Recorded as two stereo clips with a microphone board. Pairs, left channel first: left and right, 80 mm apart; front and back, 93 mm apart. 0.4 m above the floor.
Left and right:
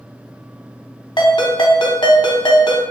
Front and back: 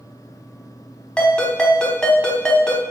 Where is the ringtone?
80° left, 1.0 m.